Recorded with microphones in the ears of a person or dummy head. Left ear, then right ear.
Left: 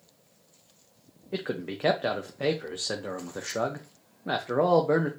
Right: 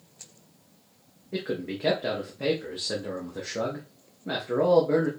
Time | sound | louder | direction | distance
1.3 | a man speaking | right 1 dB | 40° left (ahead or behind) | 0.6 m